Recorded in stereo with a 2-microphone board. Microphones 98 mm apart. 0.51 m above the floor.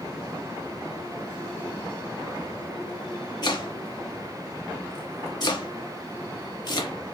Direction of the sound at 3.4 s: 45° left (ahead or behind).